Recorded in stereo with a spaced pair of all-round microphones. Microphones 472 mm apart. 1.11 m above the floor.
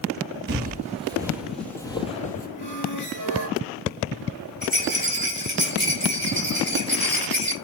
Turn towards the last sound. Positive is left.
turn(degrees=20)  # may be behind; listen again after turning